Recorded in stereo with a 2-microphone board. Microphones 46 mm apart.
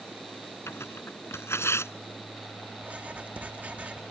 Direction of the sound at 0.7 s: 70° left (ahead or behind).